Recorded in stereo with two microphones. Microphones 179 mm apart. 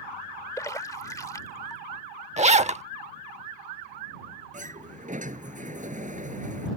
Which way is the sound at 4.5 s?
45° right (ahead or behind).